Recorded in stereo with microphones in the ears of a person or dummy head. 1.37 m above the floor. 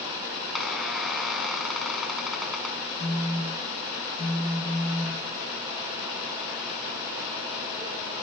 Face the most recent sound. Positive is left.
turn(degrees=10)  # may be behind; listen again after turning